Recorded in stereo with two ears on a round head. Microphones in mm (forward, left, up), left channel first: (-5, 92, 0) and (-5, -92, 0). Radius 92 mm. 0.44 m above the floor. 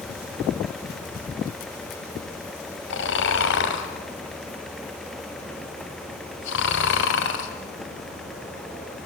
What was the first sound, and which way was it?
Snoring, 60° left (ahead or behind).